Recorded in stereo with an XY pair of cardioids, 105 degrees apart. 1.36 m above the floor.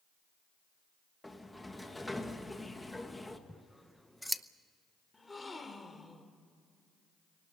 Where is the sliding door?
10° left, 1.8 m.